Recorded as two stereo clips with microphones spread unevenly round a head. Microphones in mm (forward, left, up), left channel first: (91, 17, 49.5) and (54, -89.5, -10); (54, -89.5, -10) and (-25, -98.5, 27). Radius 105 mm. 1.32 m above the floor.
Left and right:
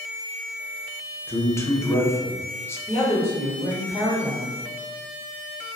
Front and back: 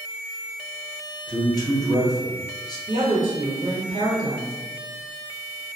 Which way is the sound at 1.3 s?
5° right.